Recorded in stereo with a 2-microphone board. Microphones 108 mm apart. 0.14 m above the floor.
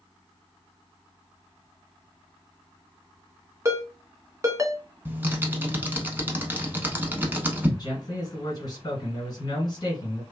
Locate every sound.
3.6 s a ringtone: 30° right (ahead or behind), 0.6 m
5.0 s typing on a keyboard: 20° right (ahead or behind), 0.6 m
7.8 s a man speaking: 40° left (ahead or behind), 1.8 m